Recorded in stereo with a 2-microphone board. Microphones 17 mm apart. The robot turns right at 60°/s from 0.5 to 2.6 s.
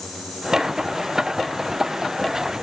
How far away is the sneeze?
I don't hear a sneeze.